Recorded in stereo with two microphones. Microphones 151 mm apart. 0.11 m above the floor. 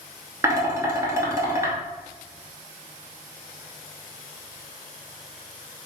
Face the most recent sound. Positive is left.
turn(degrees=-20)  # may be behind; listen again after turning